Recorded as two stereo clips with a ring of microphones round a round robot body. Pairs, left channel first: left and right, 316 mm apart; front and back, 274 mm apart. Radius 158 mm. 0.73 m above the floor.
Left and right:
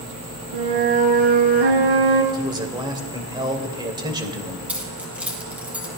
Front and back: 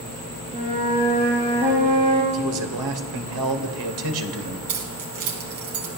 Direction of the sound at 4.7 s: 175° right.